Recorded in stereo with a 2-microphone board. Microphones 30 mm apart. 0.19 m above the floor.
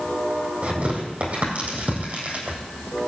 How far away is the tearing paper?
About 3.5 m.